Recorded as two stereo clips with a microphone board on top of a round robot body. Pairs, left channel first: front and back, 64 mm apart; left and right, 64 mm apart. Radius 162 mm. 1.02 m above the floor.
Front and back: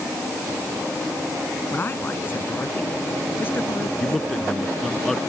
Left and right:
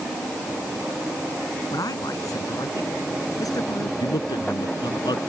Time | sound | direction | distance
1.7 | a man speaking | 60° left | ?
4.0 | a man speaking | 85° left | ?